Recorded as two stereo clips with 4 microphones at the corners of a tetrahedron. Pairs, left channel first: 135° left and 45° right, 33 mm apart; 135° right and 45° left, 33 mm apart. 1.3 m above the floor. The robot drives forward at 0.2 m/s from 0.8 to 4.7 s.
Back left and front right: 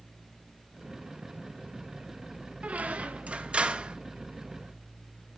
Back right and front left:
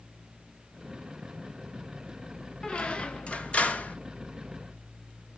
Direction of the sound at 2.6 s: 80° right.